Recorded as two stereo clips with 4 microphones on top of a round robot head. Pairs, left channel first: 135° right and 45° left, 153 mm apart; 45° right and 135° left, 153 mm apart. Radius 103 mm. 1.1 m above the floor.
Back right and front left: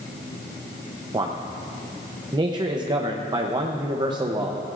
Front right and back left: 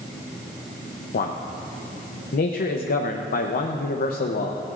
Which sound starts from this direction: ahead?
A man speaking, at 1.1 s.